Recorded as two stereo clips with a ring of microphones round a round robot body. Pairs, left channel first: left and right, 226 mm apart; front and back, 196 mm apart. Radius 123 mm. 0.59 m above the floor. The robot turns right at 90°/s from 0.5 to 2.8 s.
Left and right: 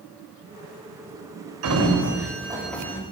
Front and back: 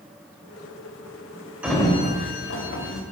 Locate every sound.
1.6 s a sliding door: 95° right, 2.5 m; by 3.0 s 10° left, 2.5 m